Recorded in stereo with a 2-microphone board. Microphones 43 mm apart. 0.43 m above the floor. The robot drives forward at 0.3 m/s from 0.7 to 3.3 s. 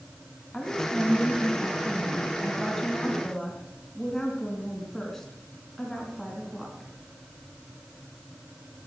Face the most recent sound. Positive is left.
turn(degrees=5)  # may be behind; listen again after turning